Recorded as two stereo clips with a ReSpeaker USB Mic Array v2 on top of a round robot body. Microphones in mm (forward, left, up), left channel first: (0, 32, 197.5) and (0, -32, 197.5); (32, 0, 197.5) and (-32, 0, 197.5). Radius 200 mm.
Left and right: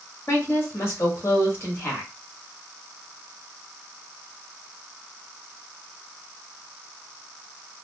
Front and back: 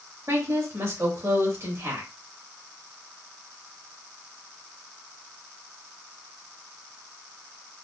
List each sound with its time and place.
0.3 s a woman speaking: 140° left, 2 m